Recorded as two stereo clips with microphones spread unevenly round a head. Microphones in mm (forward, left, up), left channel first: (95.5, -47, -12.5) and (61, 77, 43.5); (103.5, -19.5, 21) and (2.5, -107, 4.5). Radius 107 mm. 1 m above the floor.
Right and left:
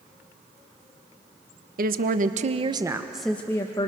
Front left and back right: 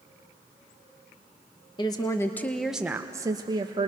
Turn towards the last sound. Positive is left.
turn(degrees=-100)